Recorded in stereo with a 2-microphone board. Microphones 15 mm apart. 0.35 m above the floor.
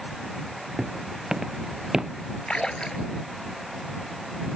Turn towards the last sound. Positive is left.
turn(degrees=70)  # may be behind; listen again after turning